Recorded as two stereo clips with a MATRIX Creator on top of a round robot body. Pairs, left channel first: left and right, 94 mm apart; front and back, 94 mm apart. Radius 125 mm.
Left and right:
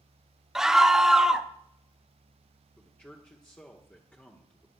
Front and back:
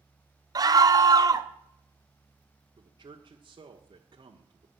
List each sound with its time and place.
0.6 s a scream: 170° right, 1.3 m
2.8 s a man speaking: 160° left, 1.7 m